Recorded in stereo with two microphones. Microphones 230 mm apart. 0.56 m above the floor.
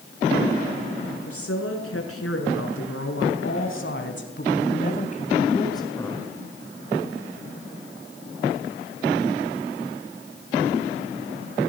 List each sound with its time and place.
1.2 s a woman speaking: 85° left, 7.5 m; by 6.3 s 5° left (ahead or behind), 3.5 m